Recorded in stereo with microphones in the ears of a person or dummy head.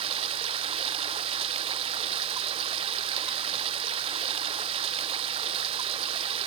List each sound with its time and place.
0.0 s running water: 35° right (ahead or behind), 0.8 m